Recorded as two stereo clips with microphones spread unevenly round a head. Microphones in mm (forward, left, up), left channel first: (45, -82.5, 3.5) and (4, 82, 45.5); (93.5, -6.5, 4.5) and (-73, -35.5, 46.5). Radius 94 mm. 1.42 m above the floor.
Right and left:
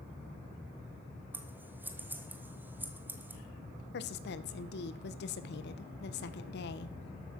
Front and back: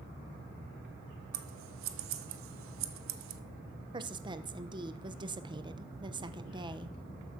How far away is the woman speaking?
About 1.0 m.